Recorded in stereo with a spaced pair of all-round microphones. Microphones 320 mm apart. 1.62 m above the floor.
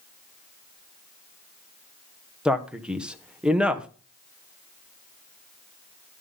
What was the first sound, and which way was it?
A man speaking, 5° right (ahead or behind).